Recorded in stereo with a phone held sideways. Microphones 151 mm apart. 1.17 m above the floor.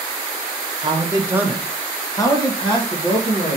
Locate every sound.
0.8 s a man speaking: 35° right (ahead or behind), 1.0 m; by 3.6 s 45° left (ahead or behind), 2 m